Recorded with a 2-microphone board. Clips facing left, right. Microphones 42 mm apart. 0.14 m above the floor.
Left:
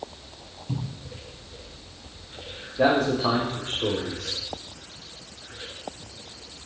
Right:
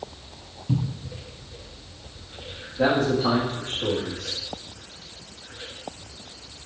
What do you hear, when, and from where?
0.7 s a cupboard door: 15° right (ahead or behind), 1.5 m
2.8 s a man speaking: 50° left (ahead or behind), 4 m